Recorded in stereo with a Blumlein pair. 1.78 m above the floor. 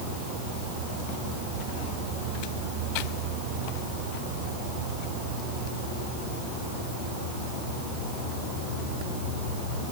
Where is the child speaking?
I don't hear a child speaking.